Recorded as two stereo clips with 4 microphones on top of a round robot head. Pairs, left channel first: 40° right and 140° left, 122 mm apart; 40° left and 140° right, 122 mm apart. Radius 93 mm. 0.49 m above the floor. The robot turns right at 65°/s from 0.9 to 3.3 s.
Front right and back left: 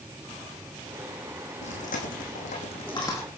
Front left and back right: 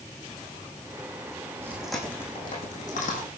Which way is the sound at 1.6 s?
70° right.